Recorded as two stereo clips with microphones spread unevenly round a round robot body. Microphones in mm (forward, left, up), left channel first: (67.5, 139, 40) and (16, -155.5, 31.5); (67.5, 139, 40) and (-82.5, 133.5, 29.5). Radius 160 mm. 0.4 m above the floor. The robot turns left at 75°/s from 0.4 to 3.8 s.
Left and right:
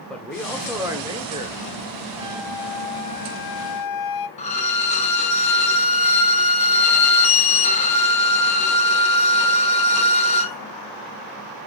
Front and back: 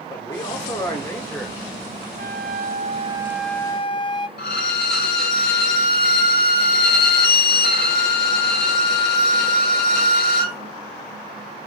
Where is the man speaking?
5° right, 1.2 m; by 3.0 s 155° left, 1.2 m.